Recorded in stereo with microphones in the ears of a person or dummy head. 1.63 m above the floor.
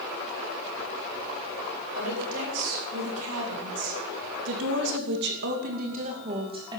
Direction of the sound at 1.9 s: 80° right.